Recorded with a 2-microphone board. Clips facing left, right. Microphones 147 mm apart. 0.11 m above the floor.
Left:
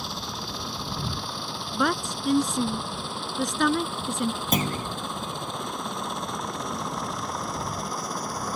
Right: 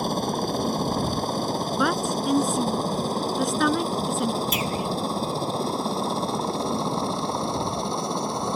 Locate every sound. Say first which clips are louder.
0.0 s a helicopter: right 11 dB; 50° right (ahead or behind); by 8.6 s 25° right (ahead or behind)
1.7 s a woman speaking: even; centre (ahead or behind)
4.5 s a clunk: right 1 dB; 50° left (ahead or behind)